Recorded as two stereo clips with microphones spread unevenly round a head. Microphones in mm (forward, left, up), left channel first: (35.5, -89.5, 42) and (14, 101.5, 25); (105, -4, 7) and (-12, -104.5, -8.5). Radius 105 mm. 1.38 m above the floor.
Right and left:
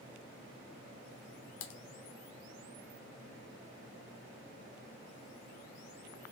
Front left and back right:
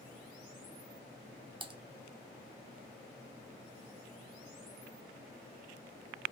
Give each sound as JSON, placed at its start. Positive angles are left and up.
{"t": 1.6, "sound": "typing on a keyboard", "azimuth_deg": -90, "distance_m": 0.7}